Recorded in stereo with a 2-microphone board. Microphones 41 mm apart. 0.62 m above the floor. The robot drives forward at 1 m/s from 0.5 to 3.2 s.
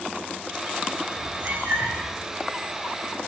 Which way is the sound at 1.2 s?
45° right (ahead or behind).